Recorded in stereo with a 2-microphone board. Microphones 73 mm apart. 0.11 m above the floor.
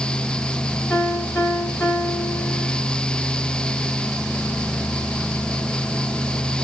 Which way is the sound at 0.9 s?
25° left (ahead or behind).